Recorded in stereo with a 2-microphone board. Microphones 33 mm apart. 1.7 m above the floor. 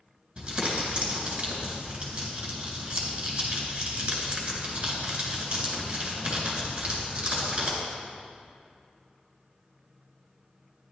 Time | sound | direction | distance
0.4 | crumpling | 30° right (ahead or behind) | 3.5 m